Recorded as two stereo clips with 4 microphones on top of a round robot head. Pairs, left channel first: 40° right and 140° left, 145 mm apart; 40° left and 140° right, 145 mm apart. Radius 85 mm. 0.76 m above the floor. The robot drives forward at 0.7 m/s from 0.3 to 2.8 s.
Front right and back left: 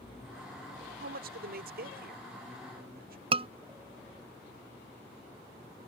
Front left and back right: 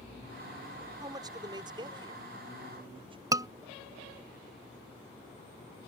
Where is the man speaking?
155° left; by 3.2 s 165° left.